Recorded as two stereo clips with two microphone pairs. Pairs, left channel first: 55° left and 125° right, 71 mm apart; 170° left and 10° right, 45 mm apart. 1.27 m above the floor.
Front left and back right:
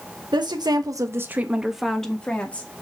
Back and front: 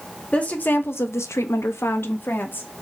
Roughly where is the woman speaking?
Behind right.